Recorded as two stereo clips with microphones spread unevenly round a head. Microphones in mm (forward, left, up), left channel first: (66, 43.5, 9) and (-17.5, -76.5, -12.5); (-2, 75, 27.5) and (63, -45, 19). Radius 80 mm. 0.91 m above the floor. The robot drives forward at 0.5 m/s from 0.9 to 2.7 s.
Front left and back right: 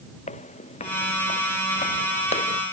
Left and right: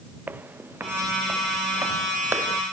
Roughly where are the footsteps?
Ahead.